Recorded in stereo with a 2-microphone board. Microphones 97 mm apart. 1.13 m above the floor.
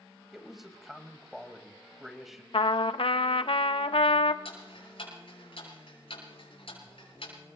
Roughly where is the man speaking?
Centre.